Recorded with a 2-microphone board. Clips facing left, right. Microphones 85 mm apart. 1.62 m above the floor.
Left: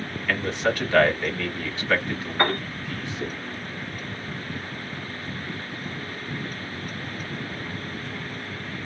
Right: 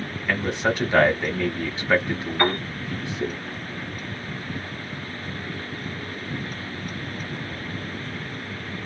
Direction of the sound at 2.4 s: 25° left (ahead or behind).